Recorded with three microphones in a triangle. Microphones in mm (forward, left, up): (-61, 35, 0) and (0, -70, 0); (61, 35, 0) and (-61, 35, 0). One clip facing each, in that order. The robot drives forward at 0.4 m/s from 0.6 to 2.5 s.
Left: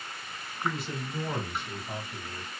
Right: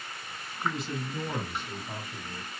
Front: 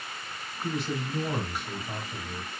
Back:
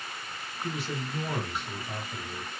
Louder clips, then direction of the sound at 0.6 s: Right 1 dB, front 3 dB; 40° left.